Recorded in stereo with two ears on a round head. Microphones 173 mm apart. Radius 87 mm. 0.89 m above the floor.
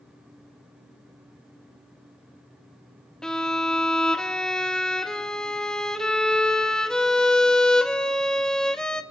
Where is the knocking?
I don't hear knocking.